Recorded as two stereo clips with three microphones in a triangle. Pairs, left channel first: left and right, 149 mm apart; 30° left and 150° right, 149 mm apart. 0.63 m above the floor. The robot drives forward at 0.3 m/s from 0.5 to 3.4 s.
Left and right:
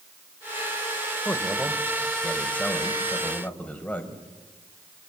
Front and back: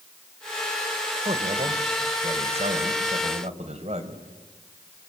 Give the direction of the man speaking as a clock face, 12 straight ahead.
6 o'clock.